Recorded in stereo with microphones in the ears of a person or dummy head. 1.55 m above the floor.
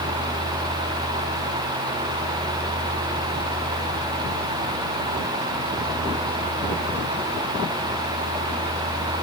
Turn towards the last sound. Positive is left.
No sound to turn to.